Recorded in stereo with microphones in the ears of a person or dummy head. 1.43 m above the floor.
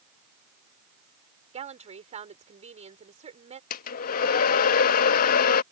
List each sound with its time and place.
1.5 s a woman speaking: 30° right (ahead or behind)
3.7 s a hair dryer: 50° left (ahead or behind)